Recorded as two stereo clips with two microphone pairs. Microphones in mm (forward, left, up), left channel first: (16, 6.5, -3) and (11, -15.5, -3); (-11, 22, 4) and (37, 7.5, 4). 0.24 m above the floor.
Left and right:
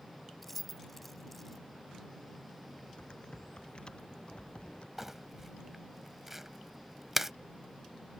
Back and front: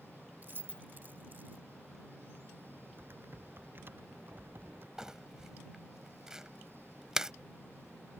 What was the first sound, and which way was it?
Keys jangling, 5° right.